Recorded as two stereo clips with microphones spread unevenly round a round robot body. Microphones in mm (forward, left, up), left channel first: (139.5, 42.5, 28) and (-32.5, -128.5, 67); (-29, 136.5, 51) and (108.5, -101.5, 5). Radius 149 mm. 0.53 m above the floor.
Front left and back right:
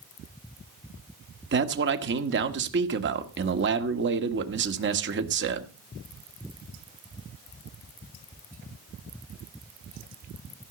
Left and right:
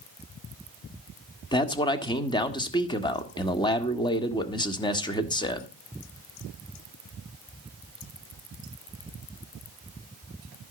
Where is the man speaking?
160° right, 1.6 m.